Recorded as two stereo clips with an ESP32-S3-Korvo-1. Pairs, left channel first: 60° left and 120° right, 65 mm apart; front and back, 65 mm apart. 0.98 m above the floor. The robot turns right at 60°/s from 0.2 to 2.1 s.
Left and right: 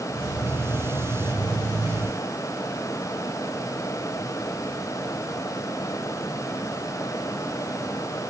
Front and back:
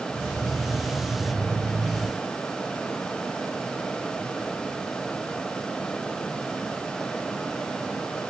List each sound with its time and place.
Only background noise.